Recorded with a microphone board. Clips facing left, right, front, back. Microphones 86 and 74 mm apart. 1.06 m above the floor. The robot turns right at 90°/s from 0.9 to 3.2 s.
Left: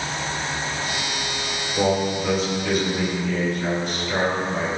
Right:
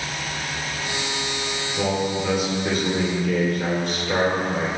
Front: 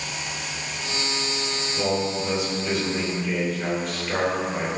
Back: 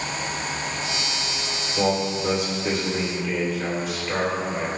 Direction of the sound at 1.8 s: 135° left.